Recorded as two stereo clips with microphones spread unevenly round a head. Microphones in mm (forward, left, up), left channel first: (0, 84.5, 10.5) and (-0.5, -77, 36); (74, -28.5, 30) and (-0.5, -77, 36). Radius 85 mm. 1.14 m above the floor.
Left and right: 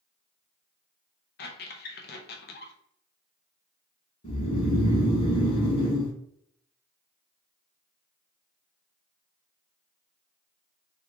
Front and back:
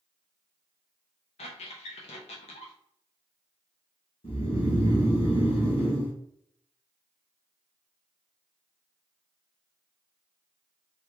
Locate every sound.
1.4 s a squeak: 55° left, 0.6 m
4.2 s snoring: 40° left, 1.6 m